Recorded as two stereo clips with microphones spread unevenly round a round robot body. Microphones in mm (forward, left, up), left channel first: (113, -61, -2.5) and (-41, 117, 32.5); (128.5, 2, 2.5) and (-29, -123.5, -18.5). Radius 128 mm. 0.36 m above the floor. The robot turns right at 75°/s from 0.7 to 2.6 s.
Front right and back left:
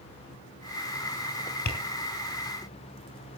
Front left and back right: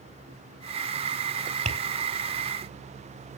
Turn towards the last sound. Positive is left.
turn(degrees=-25)